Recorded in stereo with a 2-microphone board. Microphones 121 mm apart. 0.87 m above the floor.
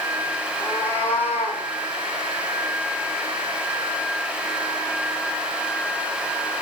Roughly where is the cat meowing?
Centre.